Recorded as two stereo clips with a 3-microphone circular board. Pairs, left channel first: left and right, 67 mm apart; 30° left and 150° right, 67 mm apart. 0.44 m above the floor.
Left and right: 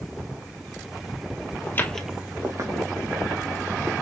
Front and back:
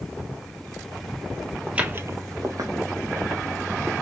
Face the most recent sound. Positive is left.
turn(degrees=-105)